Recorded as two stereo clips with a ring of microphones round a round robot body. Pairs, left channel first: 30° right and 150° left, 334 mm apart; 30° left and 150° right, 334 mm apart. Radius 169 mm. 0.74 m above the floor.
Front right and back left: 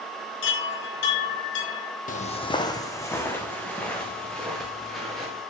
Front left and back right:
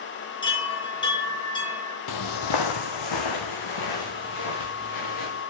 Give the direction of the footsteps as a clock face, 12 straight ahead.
11 o'clock.